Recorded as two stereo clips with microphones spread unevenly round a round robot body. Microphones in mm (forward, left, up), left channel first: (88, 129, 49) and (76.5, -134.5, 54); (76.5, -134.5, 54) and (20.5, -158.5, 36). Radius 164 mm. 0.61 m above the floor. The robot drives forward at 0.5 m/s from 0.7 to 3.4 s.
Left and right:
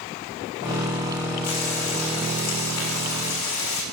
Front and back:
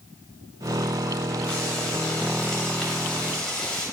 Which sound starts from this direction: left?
Frying, at 1.4 s.